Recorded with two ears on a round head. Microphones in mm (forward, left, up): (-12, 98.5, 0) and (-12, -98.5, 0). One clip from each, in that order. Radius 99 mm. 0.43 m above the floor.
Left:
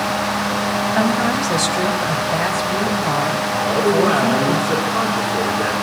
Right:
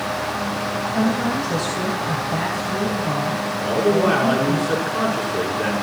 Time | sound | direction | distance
0.9 | a woman speaking | 60° left (ahead or behind) | 3 m
3.6 | a man speaking | centre (ahead or behind) | 6 m